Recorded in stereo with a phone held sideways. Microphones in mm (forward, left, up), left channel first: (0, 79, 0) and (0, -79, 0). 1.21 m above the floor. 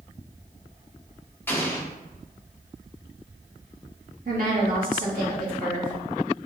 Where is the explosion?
10° left (ahead or behind), 1.0 m.